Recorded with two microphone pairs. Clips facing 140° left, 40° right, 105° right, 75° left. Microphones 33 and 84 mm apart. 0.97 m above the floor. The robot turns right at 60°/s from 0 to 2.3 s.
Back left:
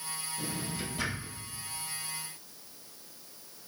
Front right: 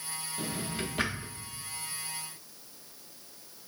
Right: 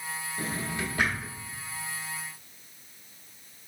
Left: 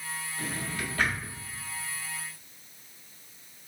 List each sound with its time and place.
0.4 s a drawer: 75° right, 0.7 m; by 1.3 s 15° right, 0.7 m